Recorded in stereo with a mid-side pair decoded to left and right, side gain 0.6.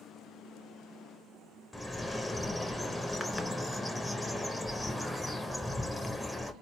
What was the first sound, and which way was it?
A bird, 10° left.